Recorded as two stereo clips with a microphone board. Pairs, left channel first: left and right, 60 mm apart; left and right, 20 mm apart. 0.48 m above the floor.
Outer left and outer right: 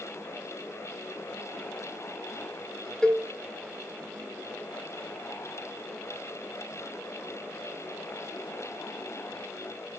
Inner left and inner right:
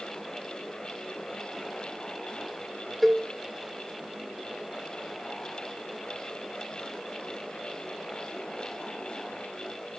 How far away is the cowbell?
About 1.0 m.